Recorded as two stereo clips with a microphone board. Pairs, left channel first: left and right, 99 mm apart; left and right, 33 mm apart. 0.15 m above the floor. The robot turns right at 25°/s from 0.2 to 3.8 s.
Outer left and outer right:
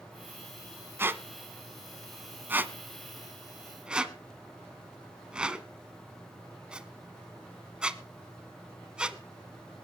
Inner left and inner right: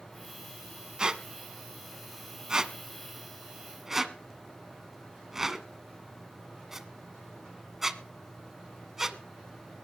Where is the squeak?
25° right (ahead or behind), 0.8 m; by 9.2 s 10° right (ahead or behind), 0.8 m.